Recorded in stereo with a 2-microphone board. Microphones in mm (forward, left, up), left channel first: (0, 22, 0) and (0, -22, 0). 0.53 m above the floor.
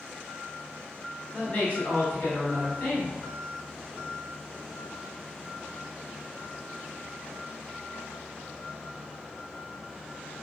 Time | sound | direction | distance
1.3 | a woman speaking | 40° left (ahead or behind) | 1.4 m